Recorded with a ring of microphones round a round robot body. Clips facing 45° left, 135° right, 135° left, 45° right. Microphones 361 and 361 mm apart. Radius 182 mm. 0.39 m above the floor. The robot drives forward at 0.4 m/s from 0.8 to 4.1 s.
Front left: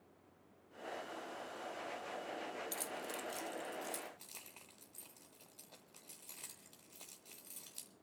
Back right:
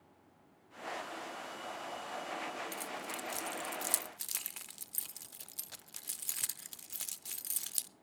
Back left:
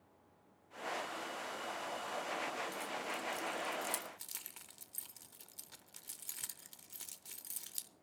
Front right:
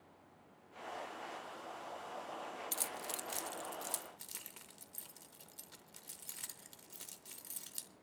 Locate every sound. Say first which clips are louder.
2.7 s keys jangling: back right 1 dB, back left 3 dB; 35° right, 0.5 m; by 7.9 s 145° right, 0.5 m